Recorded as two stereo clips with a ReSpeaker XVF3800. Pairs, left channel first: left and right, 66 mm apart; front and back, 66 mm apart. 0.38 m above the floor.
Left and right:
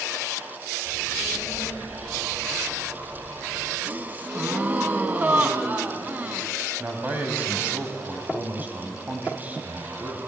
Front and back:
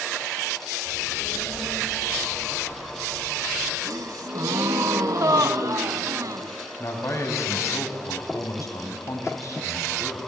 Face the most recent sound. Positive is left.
turn(degrees=-30)